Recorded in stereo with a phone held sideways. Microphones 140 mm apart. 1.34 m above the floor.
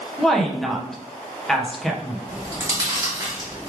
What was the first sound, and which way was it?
A woman speaking, 5° left (ahead or behind).